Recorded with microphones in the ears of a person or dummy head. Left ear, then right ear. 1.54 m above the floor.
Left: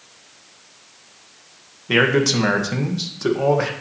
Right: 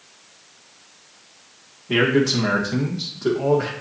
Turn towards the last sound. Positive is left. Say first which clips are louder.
# left 2 dB
turn(degrees=75)  # may be behind; listen again after turning